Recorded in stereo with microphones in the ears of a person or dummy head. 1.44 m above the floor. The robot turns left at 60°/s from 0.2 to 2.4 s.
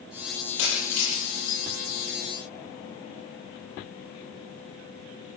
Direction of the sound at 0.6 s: 65° left (ahead or behind).